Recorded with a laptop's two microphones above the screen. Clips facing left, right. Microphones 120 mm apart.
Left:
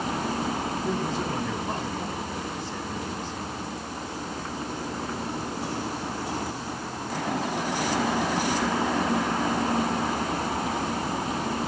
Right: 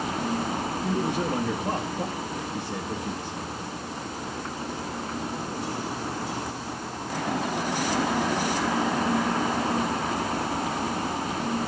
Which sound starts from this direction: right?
A man speaking, at 0.8 s.